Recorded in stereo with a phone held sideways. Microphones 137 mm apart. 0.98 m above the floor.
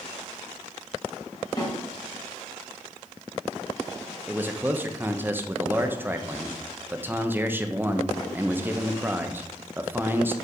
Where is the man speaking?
15° right (ahead or behind), 0.6 m.